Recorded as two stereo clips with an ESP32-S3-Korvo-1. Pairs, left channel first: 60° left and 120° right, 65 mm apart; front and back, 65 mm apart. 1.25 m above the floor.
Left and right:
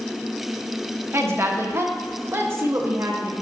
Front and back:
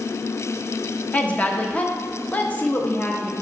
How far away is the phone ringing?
I don't hear a phone ringing.